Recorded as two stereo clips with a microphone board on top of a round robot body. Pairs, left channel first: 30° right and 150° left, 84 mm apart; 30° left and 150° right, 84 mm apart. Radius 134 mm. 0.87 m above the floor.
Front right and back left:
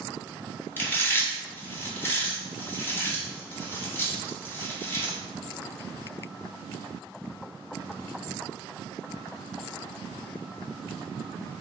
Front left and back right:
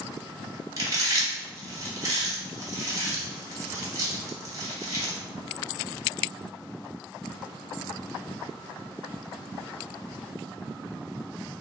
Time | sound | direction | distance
0.8 | chewing | 100° right | 1.1 m